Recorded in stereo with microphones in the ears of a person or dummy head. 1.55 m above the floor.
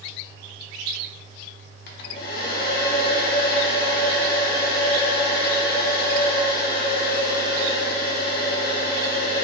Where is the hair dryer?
60° left (ahead or behind), 0.6 m.